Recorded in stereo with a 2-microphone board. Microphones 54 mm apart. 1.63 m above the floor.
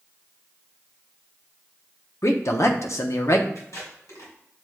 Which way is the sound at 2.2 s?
60° left (ahead or behind).